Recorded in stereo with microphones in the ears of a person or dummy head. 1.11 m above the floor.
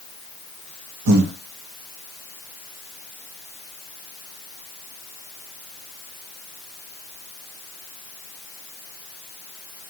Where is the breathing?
85° right, 0.6 m.